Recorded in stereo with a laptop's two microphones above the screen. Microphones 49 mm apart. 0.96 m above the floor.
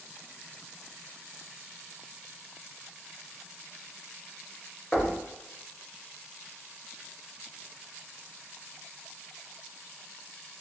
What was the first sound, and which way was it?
Knocking, 20° left (ahead or behind).